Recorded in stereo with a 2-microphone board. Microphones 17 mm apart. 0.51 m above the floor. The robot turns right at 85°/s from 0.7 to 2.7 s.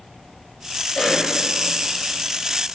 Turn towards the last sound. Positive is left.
turn(degrees=-110)